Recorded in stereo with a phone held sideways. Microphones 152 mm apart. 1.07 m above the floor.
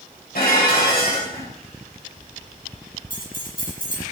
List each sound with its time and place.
0.3 s dishes clattering: 80° left, 4.5 m
3.1 s keys jangling: 75° left (ahead or behind), 6.5 m